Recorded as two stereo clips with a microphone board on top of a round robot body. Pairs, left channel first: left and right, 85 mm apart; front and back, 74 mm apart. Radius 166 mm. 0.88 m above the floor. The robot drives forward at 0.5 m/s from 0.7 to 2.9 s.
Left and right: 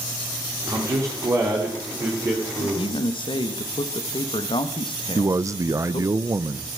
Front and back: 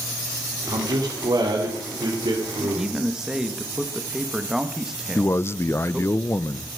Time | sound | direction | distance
0.7 | a man speaking | 140° right | 2 m
2.6 | a man speaking | 90° left | 1.6 m
5.2 | a man speaking | 50° right | 0.7 m